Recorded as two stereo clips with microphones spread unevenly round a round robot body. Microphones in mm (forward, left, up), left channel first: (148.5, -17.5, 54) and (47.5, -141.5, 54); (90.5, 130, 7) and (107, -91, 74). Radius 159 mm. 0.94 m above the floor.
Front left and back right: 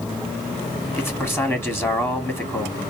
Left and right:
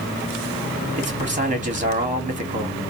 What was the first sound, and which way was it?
A man speaking, 25° right.